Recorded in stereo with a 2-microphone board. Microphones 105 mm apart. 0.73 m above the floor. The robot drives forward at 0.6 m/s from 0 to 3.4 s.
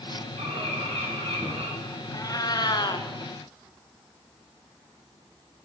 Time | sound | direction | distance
0.4 | a bird | 75° right (ahead or behind) | 4.5 m
2.1 | a cat meowing | 35° left (ahead or behind) | 0.9 m